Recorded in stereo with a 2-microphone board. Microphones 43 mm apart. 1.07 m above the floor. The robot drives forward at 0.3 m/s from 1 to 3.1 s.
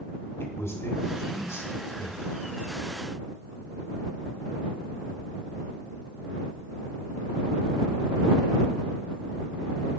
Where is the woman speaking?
85° left, 2.5 m; by 2.5 s 75° left (ahead or behind), 2.5 m.